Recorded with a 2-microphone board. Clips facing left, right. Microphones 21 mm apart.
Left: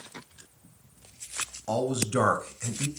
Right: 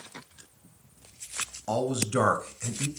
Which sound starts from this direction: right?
A man speaking, at 1.7 s.